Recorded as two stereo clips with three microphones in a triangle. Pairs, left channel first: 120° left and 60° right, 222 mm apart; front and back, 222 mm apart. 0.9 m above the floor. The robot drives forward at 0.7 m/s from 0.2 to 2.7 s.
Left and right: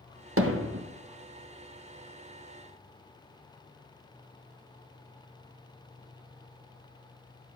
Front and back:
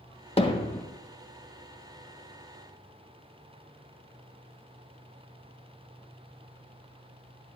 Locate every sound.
0.4 s hammering: 60° right, 0.9 m; by 0.8 s 85° right, 0.8 m